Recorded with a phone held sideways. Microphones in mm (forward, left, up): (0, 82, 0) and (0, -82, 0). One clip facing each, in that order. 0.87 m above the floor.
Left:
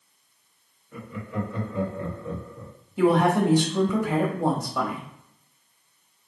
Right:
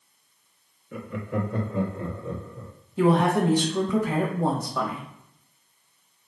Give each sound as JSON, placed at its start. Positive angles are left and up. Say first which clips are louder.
{"t": 0.9, "sound": "laughter", "louder": "right 3 dB", "side_deg": -75, "distance_m": 1.0}
{"t": 3.0, "sound": "a woman speaking", "louder": "left 1 dB", "side_deg": 0, "distance_m": 1.2}